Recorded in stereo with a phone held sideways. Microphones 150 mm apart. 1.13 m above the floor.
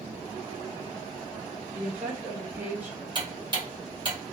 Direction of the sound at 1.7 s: 15° right (ahead or behind).